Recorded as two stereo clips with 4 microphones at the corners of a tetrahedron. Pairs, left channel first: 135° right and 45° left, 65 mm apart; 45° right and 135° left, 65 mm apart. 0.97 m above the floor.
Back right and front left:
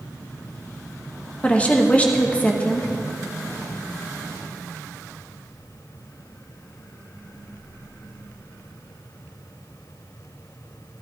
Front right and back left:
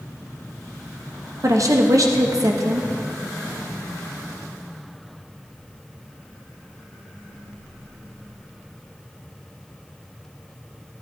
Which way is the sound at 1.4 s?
160° left.